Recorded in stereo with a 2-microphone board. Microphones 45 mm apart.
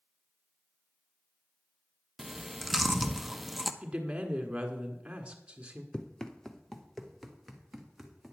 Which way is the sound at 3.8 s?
25° right (ahead or behind).